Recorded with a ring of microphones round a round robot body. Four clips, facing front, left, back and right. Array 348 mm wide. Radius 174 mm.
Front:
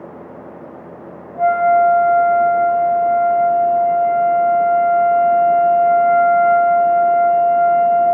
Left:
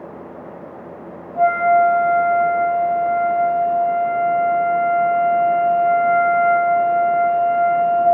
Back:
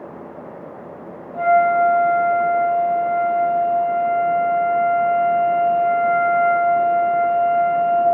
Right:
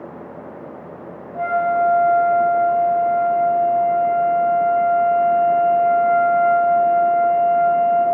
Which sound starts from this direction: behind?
A flute, at 1.3 s.